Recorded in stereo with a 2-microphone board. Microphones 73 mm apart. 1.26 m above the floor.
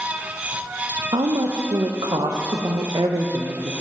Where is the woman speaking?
85° right, 0.7 m.